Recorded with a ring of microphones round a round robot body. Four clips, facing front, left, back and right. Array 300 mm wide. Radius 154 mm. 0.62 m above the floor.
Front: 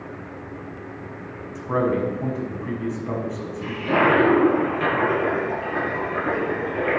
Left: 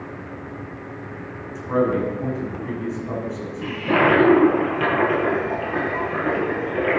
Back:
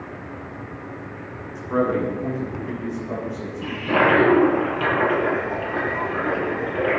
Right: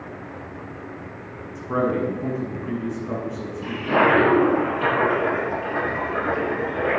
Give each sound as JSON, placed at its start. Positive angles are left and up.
{"t": 1.6, "sound": "a man speaking", "azimuth_deg": 20, "distance_m": 6.0}
{"t": 3.6, "sound": "a toilet flushing", "azimuth_deg": 75, "distance_m": 8.5}